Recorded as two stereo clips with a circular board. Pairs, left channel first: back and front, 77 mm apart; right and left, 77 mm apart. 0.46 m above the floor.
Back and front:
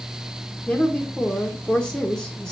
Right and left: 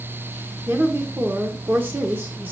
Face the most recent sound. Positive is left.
turn(degrees=115)